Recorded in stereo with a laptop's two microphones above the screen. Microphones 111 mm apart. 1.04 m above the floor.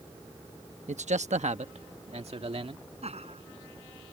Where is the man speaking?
80° right; by 2.9 s 55° right (ahead or behind).